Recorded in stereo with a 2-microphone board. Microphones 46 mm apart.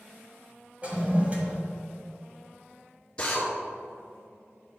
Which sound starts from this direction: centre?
A drill, at 3.2 s.